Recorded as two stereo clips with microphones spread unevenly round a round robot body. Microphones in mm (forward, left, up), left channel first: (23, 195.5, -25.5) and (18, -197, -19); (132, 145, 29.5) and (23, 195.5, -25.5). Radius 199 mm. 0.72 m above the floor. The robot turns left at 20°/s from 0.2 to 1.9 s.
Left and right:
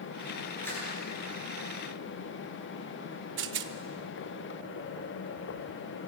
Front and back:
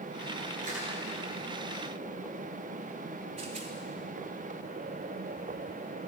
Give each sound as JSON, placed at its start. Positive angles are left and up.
{"t": 0.6, "sound": "crushing", "azimuth_deg": 175, "distance_m": 8.0}
{"t": 3.4, "sound": "a rattle", "azimuth_deg": -150, "distance_m": 0.6}